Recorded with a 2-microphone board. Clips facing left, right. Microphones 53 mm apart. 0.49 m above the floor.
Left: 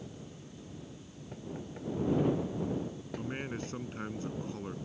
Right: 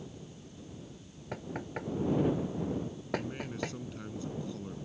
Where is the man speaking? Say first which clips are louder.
Even; 35° left (ahead or behind).